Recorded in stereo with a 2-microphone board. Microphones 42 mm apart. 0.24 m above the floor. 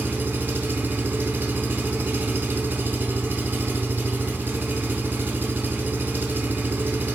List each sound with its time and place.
0.0 s an engine running: 50° right (ahead or behind), 0.7 m